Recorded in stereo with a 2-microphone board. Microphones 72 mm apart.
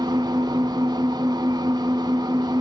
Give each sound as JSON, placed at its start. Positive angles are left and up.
{"t": 0.0, "sound": "an engine running", "side_deg": -85, "distance_m": 1.1}